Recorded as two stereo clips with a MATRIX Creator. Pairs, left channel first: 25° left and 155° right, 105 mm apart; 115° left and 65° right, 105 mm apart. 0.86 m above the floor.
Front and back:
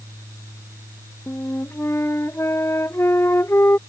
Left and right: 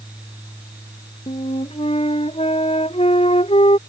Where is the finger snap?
No finger snap in this recording.